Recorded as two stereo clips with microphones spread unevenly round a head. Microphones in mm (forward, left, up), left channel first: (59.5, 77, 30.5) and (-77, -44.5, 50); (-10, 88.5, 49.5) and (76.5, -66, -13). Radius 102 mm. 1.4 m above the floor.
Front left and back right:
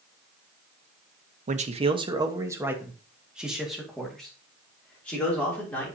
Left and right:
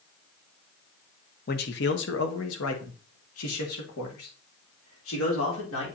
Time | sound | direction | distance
1.5 | a man speaking | 170° left | 0.9 m